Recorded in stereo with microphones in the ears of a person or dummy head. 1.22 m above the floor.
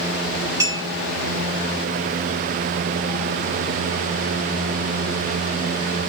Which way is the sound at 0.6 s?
15° right (ahead or behind).